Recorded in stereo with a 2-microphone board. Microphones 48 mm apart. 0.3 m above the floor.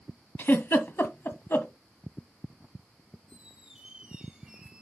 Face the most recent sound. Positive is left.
turn(degrees=-15)  # may be behind; listen again after turning